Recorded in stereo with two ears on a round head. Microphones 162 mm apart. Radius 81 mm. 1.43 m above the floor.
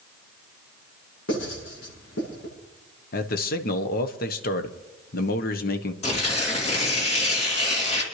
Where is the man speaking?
55° left (ahead or behind), 1.1 m.